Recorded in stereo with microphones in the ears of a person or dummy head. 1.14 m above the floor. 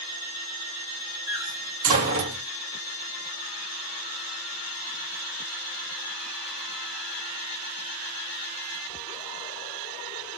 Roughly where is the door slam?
Right.